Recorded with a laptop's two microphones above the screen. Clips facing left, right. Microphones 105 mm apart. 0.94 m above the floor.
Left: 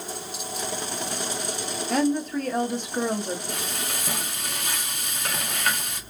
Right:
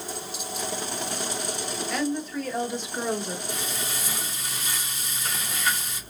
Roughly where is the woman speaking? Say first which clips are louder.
Left 6 dB; left.